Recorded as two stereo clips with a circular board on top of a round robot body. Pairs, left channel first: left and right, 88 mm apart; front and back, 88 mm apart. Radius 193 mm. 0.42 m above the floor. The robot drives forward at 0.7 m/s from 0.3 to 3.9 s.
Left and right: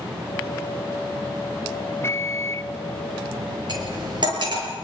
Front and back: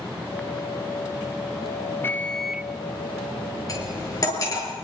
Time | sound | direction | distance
2.0 | a microwave | 45° left | 0.9 m
3.7 | cutlery clinking | 50° right | 6.5 m